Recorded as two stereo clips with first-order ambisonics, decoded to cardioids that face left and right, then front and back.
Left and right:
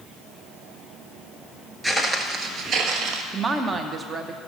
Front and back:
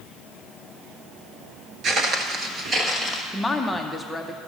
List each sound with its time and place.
1.8 s footsteps: straight behind, 1.0 m; by 3.2 s 110° right, 1.4 m
3.3 s a woman speaking: 80° right, 0.7 m